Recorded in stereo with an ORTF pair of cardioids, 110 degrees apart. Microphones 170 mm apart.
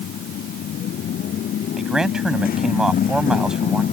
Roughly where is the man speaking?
Ahead.